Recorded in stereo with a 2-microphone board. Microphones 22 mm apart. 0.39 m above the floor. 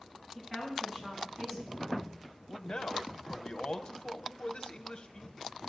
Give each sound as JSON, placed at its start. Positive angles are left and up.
{"t": 0.3, "sound": "a woman speaking", "side_deg": -35, "distance_m": 6.5}
{"t": 2.5, "sound": "a man speaking", "side_deg": 45, "distance_m": 1.1}